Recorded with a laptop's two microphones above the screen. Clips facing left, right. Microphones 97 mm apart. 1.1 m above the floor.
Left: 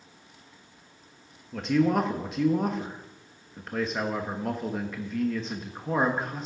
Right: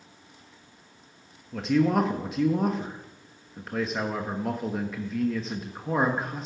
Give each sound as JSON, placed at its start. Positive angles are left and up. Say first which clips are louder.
{"t": 1.5, "sound": "a man speaking", "louder": "right 1 dB", "side_deg": 0, "distance_m": 1.0}